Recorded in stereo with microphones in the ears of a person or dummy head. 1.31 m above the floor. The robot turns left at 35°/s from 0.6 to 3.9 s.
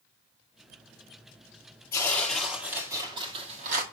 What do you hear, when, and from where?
1.9 s tearing paper: 15° left, 1.6 m; by 3.8 s 50° right, 1.6 m